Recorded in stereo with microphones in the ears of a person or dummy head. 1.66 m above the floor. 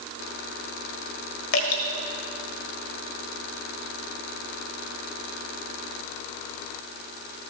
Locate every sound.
1.5 s dripping: 70° left (ahead or behind), 1.4 m